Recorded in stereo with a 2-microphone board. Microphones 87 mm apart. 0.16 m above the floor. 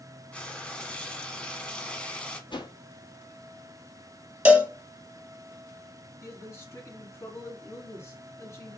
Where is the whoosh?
60° left (ahead or behind), 0.7 m.